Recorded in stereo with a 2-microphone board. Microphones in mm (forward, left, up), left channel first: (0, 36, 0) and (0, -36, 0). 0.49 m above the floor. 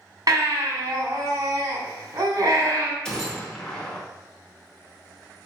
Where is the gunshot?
10° left (ahead or behind), 0.9 m.